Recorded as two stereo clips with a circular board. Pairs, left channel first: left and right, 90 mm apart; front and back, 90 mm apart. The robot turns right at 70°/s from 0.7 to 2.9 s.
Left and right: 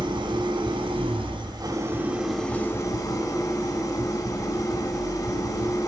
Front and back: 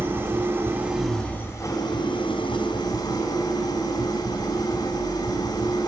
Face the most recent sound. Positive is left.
turn(degrees=35)